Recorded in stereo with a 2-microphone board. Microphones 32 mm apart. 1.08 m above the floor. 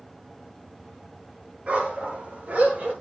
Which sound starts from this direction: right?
A dog barking, at 1.7 s.